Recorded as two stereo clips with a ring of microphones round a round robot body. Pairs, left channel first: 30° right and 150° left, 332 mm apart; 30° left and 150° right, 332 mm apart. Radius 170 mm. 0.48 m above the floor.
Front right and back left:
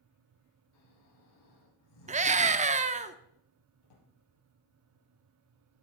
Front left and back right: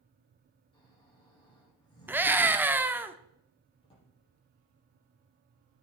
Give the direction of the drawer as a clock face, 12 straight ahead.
2 o'clock.